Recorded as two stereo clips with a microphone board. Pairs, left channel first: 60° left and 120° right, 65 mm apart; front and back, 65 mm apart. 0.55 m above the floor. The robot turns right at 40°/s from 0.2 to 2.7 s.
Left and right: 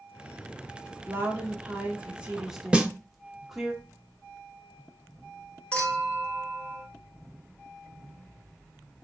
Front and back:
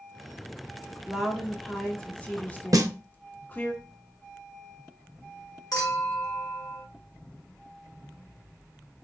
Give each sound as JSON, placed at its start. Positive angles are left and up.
{"t": 1.1, "sound": "a woman speaking", "azimuth_deg": -105, "distance_m": 0.9}
{"t": 2.7, "sound": "a snare drum", "azimuth_deg": 170, "distance_m": 0.5}
{"t": 5.7, "sound": "a clink", "azimuth_deg": -5, "distance_m": 1.4}